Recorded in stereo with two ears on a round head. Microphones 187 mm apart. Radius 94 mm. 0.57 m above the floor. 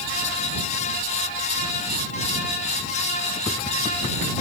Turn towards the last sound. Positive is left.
No sound to turn to.